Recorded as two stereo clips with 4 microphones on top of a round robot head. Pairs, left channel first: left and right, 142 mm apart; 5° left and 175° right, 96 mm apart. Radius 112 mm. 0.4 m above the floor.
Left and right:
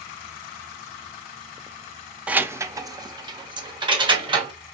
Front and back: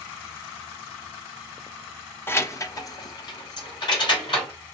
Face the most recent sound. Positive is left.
turn(degrees=-35)